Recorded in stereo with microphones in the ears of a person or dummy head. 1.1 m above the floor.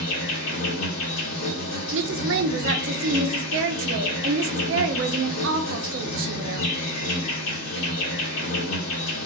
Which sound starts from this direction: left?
An insect, at 0.0 s.